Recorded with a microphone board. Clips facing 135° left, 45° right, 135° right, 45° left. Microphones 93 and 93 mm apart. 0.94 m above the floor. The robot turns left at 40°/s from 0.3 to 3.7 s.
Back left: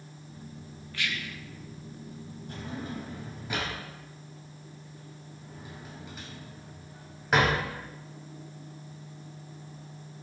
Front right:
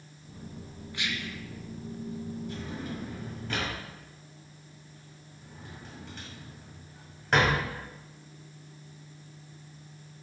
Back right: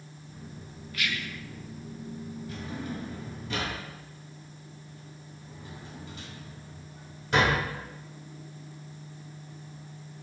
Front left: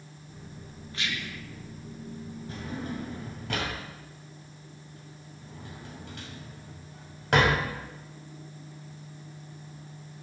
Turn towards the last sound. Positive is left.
turn(degrees=50)